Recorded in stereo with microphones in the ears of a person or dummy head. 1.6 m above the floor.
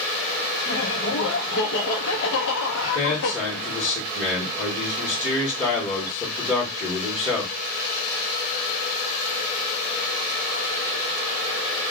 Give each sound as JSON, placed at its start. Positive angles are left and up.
{"t": 0.7, "sound": "laughter", "side_deg": 70, "distance_m": 1.1}
{"t": 2.8, "sound": "a man speaking", "side_deg": 20, "distance_m": 1.4}